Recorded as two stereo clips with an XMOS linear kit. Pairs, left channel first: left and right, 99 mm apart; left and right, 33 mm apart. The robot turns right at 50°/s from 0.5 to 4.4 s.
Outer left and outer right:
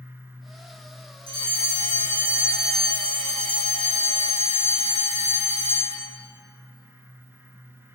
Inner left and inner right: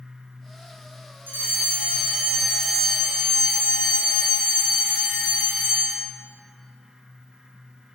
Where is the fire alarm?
70° right, 7 m; by 6.1 s 85° left, 7 m.